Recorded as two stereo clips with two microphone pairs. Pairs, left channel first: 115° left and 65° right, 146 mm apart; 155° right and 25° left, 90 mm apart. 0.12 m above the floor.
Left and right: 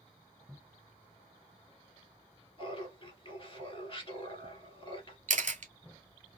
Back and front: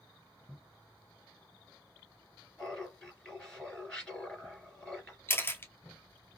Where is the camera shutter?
95° right, 0.5 m.